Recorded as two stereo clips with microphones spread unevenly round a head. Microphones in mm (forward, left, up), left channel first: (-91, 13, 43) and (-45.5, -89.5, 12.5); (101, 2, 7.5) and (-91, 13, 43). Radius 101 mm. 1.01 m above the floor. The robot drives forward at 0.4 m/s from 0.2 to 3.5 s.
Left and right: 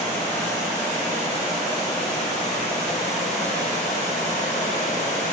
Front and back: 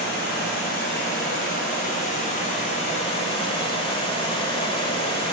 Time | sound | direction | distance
0.0 | running water | 30° left | 2.5 m